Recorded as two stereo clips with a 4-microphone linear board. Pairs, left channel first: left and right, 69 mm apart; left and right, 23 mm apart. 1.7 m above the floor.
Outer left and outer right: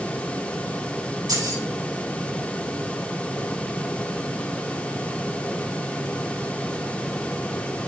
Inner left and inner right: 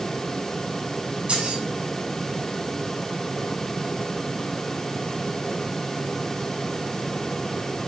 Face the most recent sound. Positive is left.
turn(degrees=-65)  # may be behind; listen again after turning